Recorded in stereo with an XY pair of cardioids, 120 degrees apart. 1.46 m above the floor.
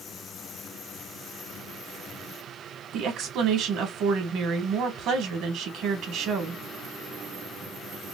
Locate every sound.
2.9 s a woman speaking: 70° right, 1.9 m